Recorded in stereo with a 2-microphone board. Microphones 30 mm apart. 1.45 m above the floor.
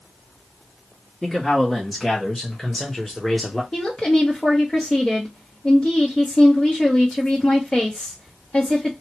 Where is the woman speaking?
30° left (ahead or behind), 1.0 m.